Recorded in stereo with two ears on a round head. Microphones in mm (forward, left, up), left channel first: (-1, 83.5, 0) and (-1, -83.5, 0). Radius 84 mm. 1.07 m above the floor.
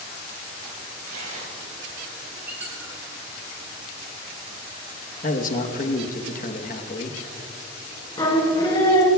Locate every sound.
1.0 s tearing paper: 50° right (ahead or behind), 6.5 m
2.5 s a squeak: 10° right (ahead or behind), 3.5 m
5.2 s a man speaking: 45° left (ahead or behind), 1.2 m
8.2 s singing: 25° left (ahead or behind), 2.5 m